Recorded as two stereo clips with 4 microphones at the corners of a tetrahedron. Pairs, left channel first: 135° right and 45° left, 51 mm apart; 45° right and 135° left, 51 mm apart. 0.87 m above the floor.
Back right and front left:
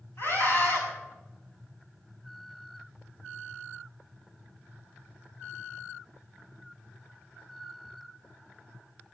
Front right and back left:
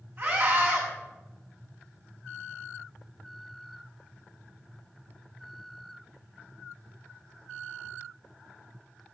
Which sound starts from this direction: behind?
A scream, at 0.2 s.